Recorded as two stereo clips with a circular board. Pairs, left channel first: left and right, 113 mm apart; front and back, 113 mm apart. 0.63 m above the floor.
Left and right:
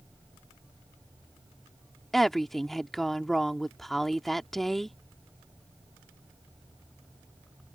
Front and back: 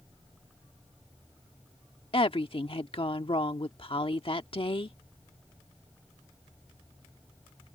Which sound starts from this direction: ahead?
A woman speaking, at 2.1 s.